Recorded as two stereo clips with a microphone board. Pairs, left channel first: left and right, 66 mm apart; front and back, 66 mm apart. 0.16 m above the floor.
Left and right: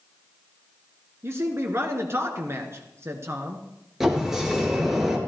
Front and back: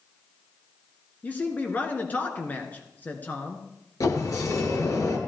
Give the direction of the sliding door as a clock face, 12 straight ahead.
12 o'clock.